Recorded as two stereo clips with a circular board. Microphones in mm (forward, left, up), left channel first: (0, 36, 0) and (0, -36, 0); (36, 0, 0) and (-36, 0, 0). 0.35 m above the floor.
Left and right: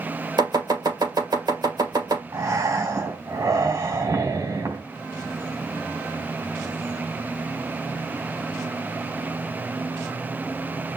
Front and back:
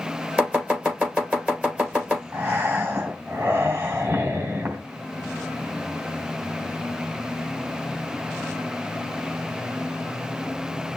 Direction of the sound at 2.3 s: 115° right.